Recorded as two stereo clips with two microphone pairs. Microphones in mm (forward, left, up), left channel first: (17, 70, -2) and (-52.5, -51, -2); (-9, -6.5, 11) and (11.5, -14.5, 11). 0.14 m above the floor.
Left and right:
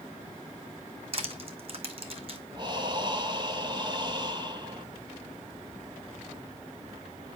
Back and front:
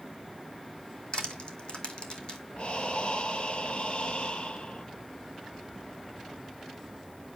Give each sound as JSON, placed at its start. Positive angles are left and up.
{"t": 1.1, "sound": "crushing", "azimuth_deg": -165, "distance_m": 1.6}
{"t": 2.6, "sound": "breathing", "azimuth_deg": -175, "distance_m": 1.0}